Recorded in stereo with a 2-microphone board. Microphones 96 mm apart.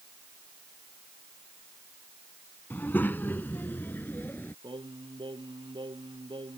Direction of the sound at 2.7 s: 20° left (ahead or behind).